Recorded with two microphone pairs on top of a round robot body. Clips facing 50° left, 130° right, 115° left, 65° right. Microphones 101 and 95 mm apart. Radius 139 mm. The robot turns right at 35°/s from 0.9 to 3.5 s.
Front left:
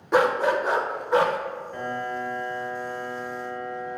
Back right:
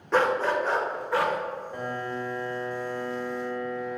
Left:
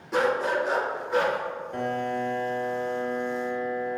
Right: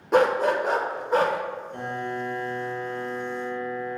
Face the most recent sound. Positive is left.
turn(degrees=-150)